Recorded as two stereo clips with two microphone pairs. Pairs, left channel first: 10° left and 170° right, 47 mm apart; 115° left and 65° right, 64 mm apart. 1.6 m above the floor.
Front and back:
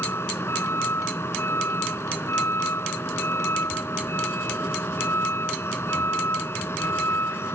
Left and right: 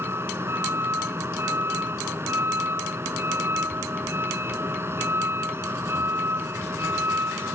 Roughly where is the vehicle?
Ahead.